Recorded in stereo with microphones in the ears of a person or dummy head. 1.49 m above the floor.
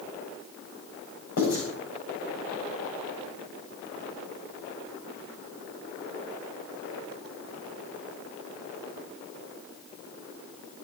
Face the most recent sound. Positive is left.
turn(degrees=55)  # may be behind; listen again after turning